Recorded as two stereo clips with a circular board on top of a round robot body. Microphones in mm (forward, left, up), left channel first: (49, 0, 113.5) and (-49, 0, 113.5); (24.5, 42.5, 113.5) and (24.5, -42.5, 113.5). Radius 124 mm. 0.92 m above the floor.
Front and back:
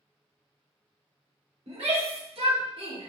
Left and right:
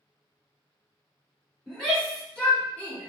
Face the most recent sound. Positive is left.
turn(degrees=155)